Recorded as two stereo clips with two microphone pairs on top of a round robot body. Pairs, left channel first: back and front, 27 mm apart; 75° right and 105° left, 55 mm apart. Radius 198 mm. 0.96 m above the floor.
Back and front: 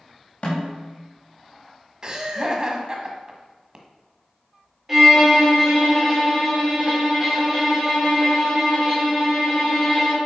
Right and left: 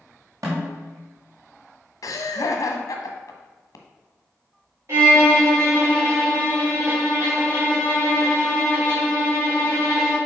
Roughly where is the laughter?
Ahead right.